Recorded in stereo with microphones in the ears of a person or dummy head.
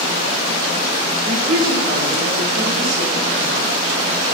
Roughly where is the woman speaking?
Right.